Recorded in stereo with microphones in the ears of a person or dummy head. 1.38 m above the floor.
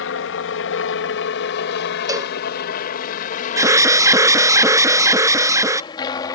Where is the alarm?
20° right (ahead or behind).